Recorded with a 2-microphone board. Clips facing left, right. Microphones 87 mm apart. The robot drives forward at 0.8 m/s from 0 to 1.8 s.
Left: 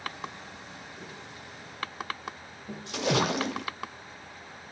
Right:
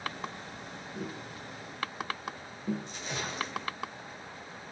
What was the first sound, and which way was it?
Tapping, 65° right (ahead or behind).